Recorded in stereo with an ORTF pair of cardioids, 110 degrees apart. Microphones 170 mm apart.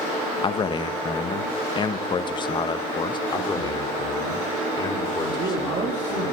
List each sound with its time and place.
0.4 s a man speaking: 30° left, 1.1 m
3.3 s a man speaking: 25° left, 3 m
5.3 s a man speaking: 45° right, 3 m